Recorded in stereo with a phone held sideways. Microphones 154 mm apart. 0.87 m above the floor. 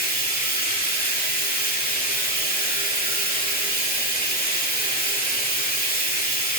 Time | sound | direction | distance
0.0 | running water | 70° left (ahead or behind) | 2 m